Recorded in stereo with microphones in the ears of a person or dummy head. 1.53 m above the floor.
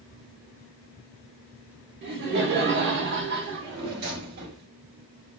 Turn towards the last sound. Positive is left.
turn(degrees=-50)  # may be behind; listen again after turning